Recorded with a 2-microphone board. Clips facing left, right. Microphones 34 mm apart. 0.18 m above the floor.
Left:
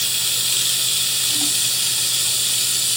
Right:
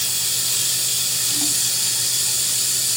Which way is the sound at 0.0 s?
45° left (ahead or behind).